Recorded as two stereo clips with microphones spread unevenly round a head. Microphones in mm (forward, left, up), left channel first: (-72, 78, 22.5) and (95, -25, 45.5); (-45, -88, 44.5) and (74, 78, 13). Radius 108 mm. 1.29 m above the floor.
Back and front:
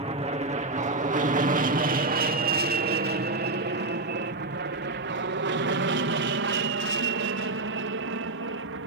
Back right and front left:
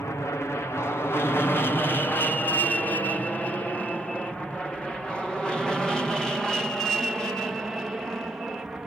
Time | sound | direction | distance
0.0 | an aircraft | 50° right | ?